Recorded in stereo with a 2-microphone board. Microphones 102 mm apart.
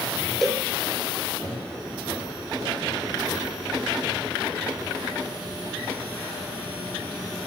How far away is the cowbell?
About 1.8 m.